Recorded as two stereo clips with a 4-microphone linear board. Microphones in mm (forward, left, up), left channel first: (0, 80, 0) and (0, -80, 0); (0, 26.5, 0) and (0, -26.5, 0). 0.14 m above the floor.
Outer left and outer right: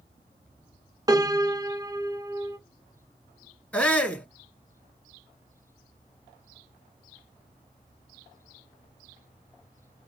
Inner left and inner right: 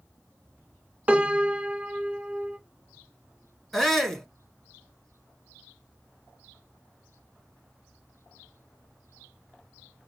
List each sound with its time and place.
1.1 s a piano: 25° right (ahead or behind), 0.7 m
3.7 s a shout: 10° left (ahead or behind), 1.0 m